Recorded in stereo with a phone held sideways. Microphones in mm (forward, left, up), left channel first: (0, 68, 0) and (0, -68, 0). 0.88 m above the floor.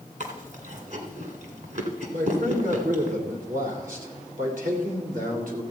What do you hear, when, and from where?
0.2 s chewing: 65° right (ahead or behind), 1.8 m
2.1 s a man speaking: 75° right (ahead or behind), 2.5 m